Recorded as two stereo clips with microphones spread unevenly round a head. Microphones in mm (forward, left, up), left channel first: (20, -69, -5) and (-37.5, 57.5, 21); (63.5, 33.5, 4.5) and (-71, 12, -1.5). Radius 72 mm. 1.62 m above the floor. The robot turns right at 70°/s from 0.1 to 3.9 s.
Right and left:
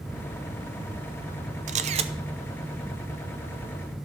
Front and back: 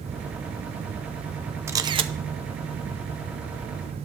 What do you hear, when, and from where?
1.7 s a camera shutter: 120° left, 0.6 m; by 2.1 s 150° left, 0.6 m